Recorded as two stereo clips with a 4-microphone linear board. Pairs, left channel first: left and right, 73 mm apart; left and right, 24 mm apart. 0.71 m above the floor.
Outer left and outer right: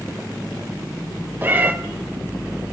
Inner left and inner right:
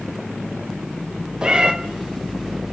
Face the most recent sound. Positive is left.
turn(degrees=-30)  # may be behind; listen again after turning